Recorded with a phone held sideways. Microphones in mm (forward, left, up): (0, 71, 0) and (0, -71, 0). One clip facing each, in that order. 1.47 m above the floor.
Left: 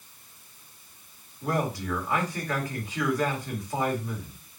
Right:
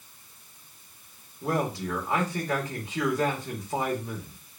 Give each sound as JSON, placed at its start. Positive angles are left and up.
{"t": 1.4, "sound": "a man speaking", "side_deg": -20, "distance_m": 1.7}